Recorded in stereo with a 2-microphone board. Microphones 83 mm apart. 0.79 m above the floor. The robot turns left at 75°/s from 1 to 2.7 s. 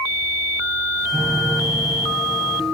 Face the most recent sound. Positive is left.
turn(degrees=90)